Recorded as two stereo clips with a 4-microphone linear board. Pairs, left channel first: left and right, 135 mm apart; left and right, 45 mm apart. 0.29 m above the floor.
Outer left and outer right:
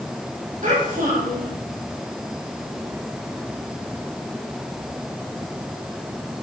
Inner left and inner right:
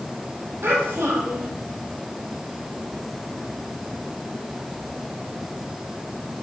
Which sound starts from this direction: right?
A child speaking, at 0.6 s.